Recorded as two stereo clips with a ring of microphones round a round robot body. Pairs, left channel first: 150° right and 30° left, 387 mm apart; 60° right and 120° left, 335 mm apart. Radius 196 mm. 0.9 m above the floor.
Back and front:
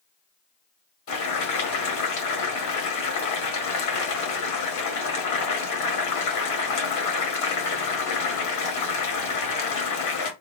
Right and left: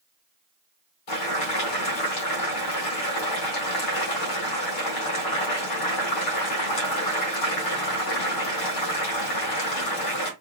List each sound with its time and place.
1.1 s boiling: 105° right, 1.8 m